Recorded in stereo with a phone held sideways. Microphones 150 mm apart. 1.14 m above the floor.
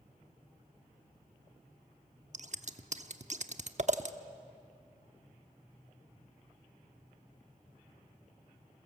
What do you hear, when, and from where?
2.3 s scissors: 50° right (ahead or behind), 0.9 m